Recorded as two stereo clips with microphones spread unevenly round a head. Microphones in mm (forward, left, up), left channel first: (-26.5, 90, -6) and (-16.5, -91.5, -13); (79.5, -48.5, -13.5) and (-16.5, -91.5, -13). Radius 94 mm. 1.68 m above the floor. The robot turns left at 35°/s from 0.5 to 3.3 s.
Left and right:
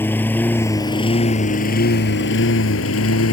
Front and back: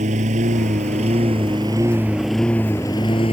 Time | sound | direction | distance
0.0 | a lawn mower | 170° left | ?